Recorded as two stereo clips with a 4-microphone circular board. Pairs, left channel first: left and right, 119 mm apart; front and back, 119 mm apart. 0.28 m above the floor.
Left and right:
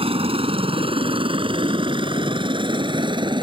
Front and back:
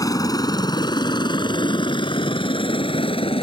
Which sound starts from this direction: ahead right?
A helicopter, at 0.0 s.